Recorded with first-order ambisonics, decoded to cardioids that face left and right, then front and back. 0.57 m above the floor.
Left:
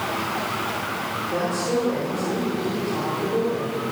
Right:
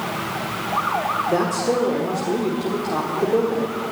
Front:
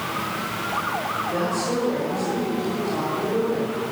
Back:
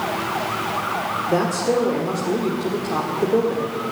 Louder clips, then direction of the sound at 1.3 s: Right 1 dB, back 7 dB; 140° right.